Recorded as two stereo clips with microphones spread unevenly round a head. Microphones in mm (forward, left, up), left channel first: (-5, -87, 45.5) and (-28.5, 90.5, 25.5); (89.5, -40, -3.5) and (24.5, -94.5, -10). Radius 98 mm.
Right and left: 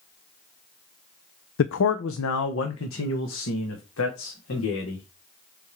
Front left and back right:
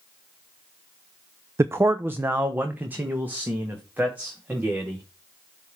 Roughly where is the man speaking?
Right.